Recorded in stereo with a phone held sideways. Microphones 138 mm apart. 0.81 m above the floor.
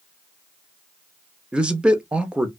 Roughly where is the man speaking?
Centre.